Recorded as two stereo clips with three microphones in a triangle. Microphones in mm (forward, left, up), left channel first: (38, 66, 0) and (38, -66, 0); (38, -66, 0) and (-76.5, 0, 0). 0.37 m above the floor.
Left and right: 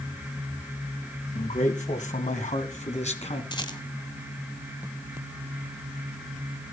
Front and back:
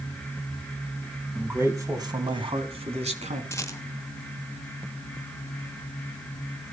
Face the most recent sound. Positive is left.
turn(degrees=40)